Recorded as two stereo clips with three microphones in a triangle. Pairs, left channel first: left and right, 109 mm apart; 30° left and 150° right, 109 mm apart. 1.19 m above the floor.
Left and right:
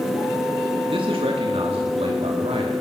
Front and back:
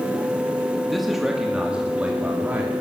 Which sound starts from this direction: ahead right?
A man speaking, at 0.9 s.